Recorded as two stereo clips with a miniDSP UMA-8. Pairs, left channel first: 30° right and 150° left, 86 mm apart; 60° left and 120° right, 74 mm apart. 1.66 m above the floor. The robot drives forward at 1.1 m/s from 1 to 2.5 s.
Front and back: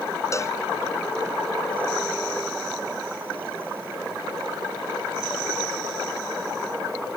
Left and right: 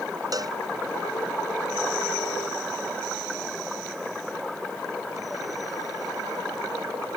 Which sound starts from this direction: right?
A cowbell, at 0.3 s.